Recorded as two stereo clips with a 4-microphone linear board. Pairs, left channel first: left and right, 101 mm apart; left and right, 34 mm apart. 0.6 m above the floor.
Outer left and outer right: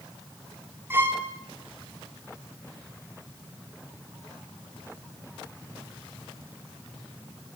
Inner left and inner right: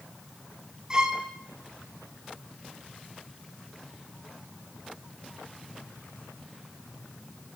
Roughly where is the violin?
Right.